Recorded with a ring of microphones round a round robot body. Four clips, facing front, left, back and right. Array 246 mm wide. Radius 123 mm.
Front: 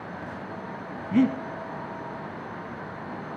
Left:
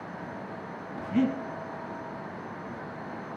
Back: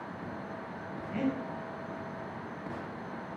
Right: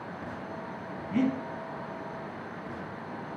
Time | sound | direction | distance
1.1 | breathing | 5° left | 0.7 m